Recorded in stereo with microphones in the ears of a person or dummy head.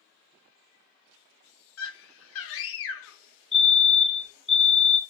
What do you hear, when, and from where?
1.8 s a scream: 60° left (ahead or behind), 0.5 m
3.5 s a fire alarm: centre (ahead or behind), 0.8 m